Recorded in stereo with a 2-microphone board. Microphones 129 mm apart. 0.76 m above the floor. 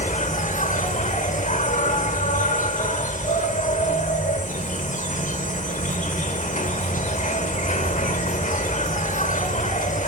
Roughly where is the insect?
Left.